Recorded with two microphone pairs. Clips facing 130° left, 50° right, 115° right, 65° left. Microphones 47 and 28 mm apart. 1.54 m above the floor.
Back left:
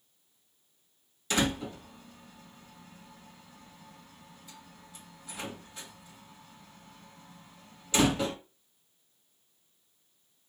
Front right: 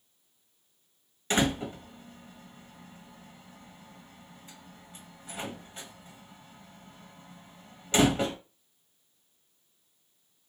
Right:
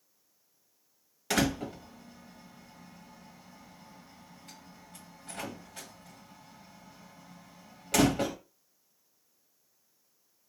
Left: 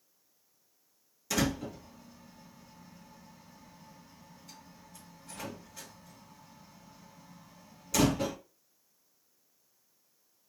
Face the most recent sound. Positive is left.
turn(degrees=-95)